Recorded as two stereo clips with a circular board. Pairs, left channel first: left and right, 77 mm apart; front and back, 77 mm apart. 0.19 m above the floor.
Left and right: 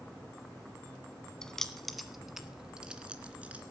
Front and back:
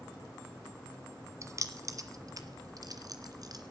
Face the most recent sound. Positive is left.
turn(degrees=-160)